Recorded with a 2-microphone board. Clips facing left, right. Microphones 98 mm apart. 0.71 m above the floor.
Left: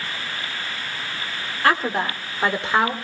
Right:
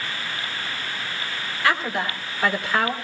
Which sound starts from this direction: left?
A woman speaking, at 1.6 s.